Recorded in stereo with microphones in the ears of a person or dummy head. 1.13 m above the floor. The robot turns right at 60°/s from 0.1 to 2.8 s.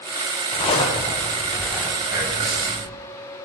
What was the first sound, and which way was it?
A zipper, 110° left.